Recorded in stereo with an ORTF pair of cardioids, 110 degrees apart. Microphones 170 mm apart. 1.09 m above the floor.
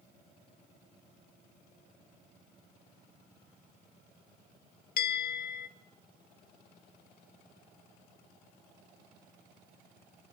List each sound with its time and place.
5.0 s a bell: 60° left, 1.7 m